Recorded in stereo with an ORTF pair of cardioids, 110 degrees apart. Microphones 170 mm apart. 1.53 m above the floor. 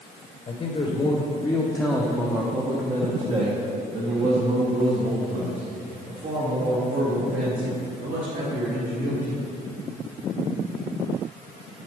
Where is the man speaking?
40° left, 1.1 m; by 9.4 s 65° right, 4 m.